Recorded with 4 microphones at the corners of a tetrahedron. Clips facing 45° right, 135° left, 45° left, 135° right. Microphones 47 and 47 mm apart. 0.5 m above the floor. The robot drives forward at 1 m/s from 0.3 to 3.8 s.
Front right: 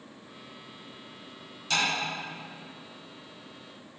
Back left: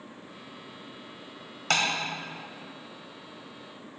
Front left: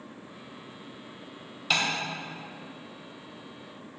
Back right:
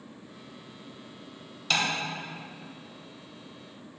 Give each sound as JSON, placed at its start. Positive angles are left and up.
{"t": 1.7, "sound": "tapping", "azimuth_deg": 125, "distance_m": 1.8}